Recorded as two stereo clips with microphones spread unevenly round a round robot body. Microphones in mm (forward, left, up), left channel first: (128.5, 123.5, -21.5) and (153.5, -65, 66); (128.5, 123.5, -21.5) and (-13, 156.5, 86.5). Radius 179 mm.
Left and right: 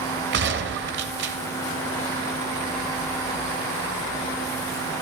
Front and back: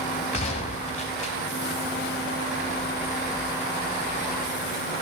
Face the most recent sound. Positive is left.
turn(degrees=-45)